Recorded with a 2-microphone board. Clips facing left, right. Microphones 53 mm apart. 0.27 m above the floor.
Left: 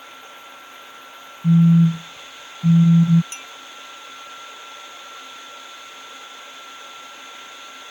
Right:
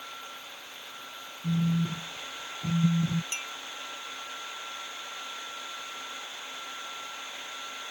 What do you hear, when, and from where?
1.4 s a phone buzzing: 70° left (ahead or behind)
3.3 s a clink: 25° right (ahead or behind)